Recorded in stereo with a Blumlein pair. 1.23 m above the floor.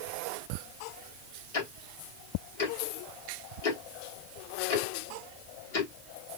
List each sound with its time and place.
1.5 s ticking: 55° left, 1.1 m